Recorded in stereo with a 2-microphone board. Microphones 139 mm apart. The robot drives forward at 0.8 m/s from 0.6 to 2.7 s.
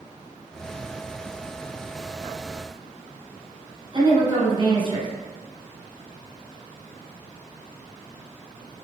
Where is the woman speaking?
30° right (ahead or behind), 1.6 m.